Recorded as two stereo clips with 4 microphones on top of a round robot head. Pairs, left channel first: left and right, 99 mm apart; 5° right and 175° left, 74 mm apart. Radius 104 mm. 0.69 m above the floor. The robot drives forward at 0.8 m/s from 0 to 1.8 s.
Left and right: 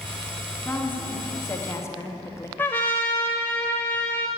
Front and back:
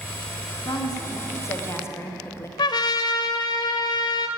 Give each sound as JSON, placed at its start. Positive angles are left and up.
{"t": 0.7, "sound": "a woman speaking", "azimuth_deg": 20, "distance_m": 1.9}
{"t": 2.6, "sound": "a trumpet", "azimuth_deg": 15, "distance_m": 0.6}